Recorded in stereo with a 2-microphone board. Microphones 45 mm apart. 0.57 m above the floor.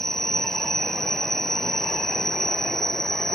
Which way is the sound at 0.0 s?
10° left (ahead or behind).